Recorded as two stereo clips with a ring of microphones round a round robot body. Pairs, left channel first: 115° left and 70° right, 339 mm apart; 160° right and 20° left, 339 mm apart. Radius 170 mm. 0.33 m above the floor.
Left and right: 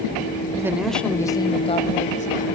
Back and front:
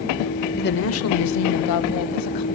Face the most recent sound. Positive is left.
turn(degrees=180)